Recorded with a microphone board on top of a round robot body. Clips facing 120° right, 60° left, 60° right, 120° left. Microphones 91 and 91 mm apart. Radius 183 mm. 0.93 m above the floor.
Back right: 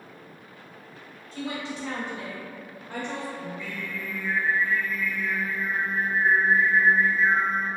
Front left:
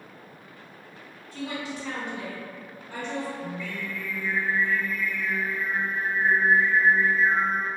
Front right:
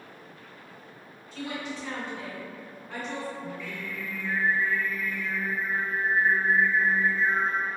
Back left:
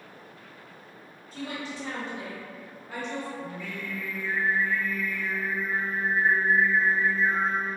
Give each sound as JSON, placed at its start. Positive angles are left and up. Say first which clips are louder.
{"t": 1.3, "sound": "a woman speaking", "louder": "even, front right 1 dB", "azimuth_deg": 170, "distance_m": 1.6}
{"t": 3.4, "sound": "singing", "louder": "front left 1 dB, even", "azimuth_deg": 175, "distance_m": 1.5}